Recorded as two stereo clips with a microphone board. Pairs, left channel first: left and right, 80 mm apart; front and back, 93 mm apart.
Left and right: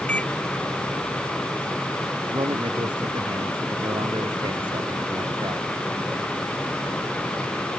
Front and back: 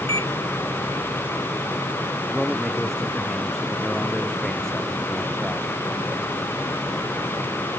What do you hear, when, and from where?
0.1 s a microwave: 165° left
2.3 s a man speaking: 90° right